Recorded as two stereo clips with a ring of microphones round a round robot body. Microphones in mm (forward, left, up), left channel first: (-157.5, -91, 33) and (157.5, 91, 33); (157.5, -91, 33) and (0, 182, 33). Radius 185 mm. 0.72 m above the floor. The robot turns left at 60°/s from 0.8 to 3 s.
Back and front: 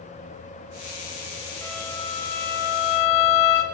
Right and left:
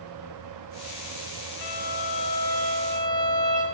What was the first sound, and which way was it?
A violin, 65° right.